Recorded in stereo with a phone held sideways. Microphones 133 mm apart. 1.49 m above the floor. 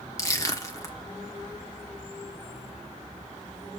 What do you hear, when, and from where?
0.2 s crushing: 25° left (ahead or behind), 1.3 m